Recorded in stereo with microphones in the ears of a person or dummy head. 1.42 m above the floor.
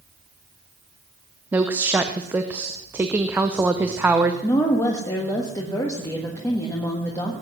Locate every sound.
1.5 s a woman speaking: 10° right (ahead or behind), 0.7 m
4.4 s a woman speaking: 20° left (ahead or behind), 1.6 m